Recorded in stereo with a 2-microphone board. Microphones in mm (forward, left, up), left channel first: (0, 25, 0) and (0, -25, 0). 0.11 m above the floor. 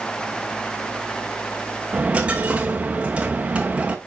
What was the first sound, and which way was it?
A dropped coin, 25° right (ahead or behind).